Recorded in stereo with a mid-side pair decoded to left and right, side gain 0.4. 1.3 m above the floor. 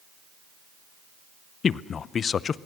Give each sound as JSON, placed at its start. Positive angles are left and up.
{"t": 1.6, "sound": "a man speaking", "azimuth_deg": 55, "distance_m": 0.6}